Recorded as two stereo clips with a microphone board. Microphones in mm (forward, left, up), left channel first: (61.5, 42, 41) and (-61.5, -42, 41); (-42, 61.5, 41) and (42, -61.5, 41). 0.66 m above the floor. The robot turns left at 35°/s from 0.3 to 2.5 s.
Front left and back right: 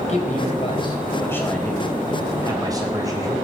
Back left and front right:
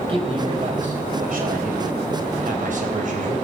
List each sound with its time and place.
0.1 s a man speaking: 5° right, 4 m; by 3.4 s 80° right, 4 m